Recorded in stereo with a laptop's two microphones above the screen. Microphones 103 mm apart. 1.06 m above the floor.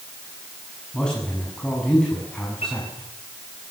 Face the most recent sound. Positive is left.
turn(degrees=85)